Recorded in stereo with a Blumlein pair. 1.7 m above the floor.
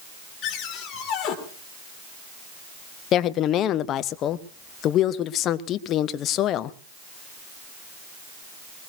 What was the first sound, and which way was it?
A cupboard door, 30° left.